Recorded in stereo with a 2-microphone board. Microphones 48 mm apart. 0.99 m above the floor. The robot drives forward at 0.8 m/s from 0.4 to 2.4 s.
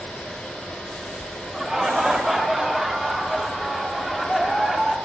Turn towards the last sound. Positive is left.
turn(degrees=-5)  # may be behind; listen again after turning